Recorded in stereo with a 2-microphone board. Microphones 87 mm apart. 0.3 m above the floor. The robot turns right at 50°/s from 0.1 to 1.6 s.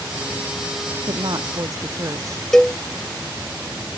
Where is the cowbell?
5° left (ahead or behind).